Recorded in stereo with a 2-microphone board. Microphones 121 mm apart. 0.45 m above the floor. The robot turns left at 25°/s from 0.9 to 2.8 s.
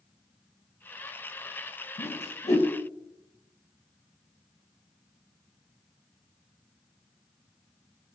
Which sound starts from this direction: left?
A whoosh, at 2.0 s.